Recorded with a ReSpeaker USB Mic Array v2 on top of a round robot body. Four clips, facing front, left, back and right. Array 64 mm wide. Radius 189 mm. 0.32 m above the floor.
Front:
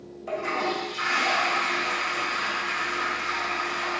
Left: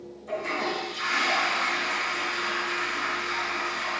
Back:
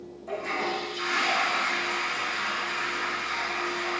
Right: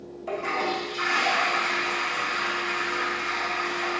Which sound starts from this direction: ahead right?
A toilet flushing, at 0.3 s.